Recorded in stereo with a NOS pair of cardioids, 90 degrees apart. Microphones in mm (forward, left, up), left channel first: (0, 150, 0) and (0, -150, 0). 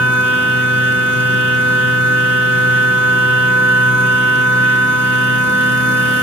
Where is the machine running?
35° left, 2 m.